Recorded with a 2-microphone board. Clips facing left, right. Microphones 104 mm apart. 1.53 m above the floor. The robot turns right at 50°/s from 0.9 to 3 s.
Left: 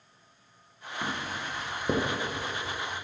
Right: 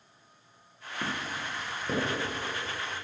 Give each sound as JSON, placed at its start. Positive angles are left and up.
{"t": 1.0, "sound": "footsteps", "side_deg": -15, "distance_m": 1.7}